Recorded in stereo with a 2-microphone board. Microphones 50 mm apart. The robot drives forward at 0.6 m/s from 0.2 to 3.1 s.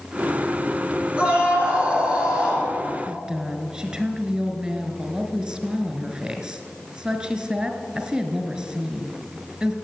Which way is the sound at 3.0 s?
20° right (ahead or behind).